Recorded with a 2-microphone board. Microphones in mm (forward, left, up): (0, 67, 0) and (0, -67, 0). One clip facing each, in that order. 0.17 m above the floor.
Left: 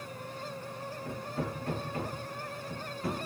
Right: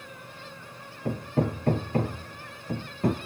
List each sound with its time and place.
1.1 s hammering: 55° right (ahead or behind), 1.5 m